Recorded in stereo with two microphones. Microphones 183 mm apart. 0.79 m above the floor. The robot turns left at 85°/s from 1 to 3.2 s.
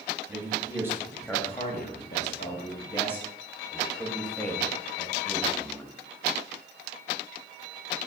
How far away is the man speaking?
About 0.9 m.